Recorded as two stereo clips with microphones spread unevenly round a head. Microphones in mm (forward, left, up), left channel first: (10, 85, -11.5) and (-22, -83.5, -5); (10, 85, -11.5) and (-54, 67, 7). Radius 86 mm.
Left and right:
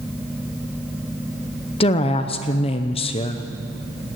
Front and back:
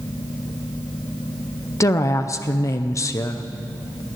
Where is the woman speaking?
45° left, 0.6 m.